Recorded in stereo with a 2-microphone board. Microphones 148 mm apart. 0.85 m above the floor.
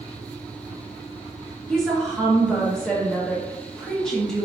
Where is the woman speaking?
5° left (ahead or behind), 0.7 m.